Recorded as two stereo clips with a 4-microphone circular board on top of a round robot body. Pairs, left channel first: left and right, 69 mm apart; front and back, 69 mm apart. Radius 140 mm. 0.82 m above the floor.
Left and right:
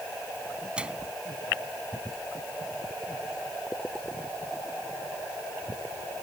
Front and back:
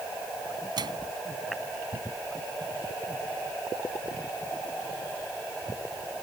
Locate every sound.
0.8 s a microwave: 165° right